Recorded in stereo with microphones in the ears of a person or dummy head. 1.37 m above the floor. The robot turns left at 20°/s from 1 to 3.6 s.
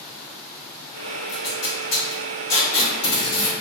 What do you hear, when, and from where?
1.3 s tape being pulled: 65° left (ahead or behind), 1.5 m; by 3.5 s 25° left (ahead or behind), 1.5 m